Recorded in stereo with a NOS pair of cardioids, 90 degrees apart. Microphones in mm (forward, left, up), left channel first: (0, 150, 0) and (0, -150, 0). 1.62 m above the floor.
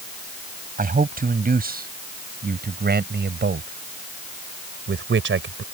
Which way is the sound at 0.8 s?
30° right.